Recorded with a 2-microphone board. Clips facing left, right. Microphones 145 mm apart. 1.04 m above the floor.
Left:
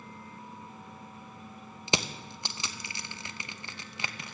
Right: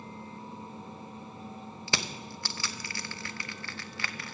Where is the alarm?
No alarm in this recording.